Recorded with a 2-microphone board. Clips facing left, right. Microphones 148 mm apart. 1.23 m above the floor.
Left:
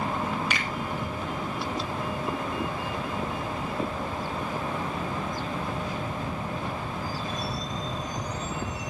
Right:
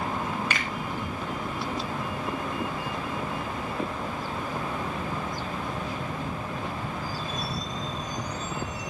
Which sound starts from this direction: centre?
A finger snap, at 0.5 s.